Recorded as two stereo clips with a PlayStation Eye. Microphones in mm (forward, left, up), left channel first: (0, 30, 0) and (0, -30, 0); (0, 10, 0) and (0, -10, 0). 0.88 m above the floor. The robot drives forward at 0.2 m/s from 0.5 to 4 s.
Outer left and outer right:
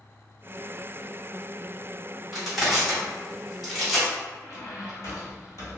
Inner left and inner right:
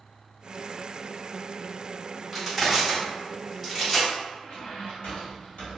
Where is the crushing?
5° right (ahead or behind), 1.7 m.